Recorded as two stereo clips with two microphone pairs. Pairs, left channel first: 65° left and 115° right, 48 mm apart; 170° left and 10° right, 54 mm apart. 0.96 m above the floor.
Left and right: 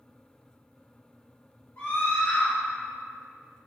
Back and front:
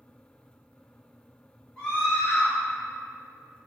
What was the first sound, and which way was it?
A scream, 95° left.